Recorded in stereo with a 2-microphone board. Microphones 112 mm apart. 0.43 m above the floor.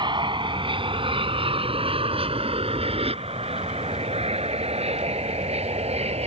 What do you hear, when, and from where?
0.0 s an aircraft: 45° right (ahead or behind); by 6.3 s 65° right (ahead or behind)